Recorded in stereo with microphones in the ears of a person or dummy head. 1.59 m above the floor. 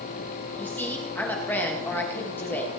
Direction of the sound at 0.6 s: 10° left (ahead or behind).